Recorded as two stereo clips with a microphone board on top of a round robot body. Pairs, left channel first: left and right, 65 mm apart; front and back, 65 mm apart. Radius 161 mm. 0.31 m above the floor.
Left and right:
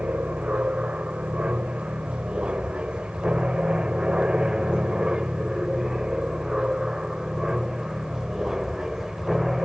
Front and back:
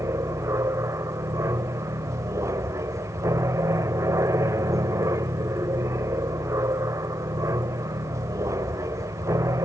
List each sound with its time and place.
0.0 s an aircraft: 160° right; by 9.7 s 175° right